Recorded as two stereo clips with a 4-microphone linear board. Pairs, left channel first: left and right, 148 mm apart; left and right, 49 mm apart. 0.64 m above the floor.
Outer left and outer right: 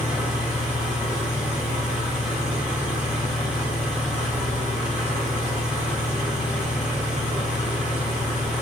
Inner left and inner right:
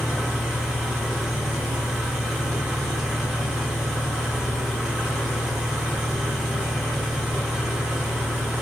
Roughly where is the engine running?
Centre.